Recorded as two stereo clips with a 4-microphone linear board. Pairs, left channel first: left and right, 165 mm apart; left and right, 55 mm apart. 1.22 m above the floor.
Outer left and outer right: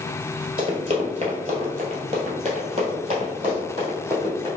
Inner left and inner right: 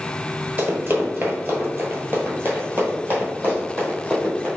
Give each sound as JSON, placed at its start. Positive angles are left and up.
{"t": 0.6, "sound": "running footsteps", "side_deg": -35, "distance_m": 1.4}